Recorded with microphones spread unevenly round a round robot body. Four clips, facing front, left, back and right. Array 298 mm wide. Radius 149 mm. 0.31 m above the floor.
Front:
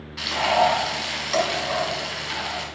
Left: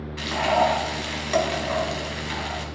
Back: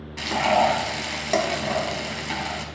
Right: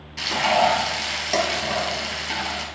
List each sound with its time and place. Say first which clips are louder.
0.2 s frying: right 1 dB, even; 165° right, 1.9 m